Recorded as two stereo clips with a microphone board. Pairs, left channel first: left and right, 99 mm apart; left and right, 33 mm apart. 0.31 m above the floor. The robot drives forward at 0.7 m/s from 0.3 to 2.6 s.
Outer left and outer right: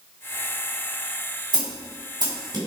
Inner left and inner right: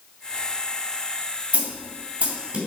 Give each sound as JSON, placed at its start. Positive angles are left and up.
{"t": 1.5, "sound": "a snare drum", "side_deg": -50, "distance_m": 2.0}